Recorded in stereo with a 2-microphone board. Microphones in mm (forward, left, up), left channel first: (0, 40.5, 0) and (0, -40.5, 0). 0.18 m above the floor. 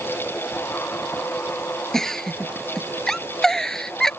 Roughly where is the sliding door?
No sliding door in this recording.